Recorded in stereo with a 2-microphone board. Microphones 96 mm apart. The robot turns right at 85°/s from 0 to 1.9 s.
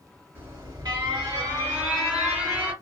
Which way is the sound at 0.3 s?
145° right.